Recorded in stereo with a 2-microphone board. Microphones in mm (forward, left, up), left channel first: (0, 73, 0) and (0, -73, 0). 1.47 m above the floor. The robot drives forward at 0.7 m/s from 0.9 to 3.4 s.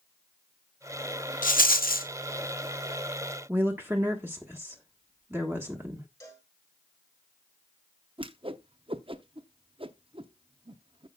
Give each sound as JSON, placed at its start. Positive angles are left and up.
{"t": 1.4, "sound": "a rattle", "side_deg": 70, "distance_m": 1.0}
{"t": 3.5, "sound": "a woman speaking", "side_deg": -15, "distance_m": 1.4}
{"t": 6.2, "sound": "a cowbell", "side_deg": 25, "distance_m": 9.0}
{"t": 8.2, "sound": "a whoosh", "side_deg": -40, "distance_m": 0.7}